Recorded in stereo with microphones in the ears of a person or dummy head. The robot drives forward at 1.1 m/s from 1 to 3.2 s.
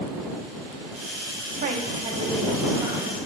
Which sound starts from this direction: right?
A woman speaking, at 1.6 s.